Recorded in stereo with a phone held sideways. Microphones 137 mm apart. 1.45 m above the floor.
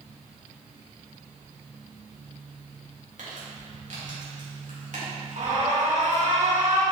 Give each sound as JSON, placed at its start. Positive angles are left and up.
{"t": 3.2, "sound": "crumpling", "side_deg": -70, "distance_m": 2.5}
{"t": 5.4, "sound": "an alarm", "side_deg": -65, "distance_m": 1.9}